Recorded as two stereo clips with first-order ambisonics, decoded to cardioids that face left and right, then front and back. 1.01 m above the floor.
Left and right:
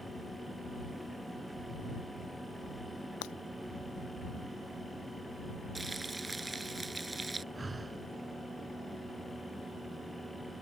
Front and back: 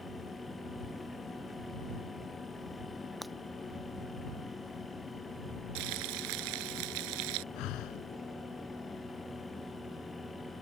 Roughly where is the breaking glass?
Left.